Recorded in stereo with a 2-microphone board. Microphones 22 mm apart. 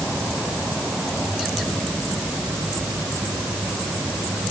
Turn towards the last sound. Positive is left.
No sound to turn to.